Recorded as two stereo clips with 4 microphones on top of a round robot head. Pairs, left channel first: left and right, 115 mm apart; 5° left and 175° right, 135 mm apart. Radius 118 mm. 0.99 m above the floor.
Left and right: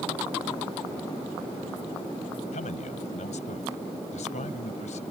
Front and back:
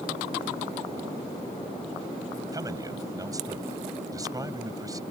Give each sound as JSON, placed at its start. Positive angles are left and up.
{"t": 2.5, "sound": "a man speaking", "azimuth_deg": 120}